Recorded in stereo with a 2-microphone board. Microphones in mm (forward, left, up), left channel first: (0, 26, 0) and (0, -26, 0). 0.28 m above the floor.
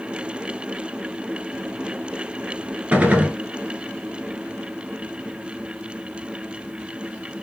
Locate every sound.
2.9 s a gunshot: 25° right (ahead or behind), 0.9 m